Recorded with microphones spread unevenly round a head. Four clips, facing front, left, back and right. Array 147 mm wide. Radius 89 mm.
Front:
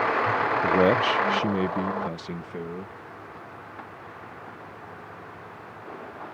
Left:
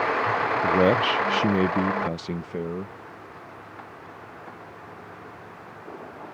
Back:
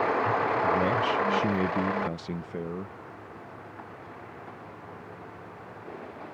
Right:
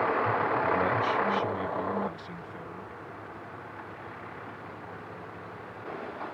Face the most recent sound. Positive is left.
turn(degrees=130)